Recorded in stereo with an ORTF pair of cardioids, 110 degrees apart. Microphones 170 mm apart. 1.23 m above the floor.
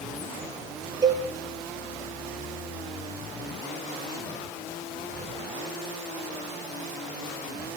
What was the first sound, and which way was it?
A cowbell, 20° right.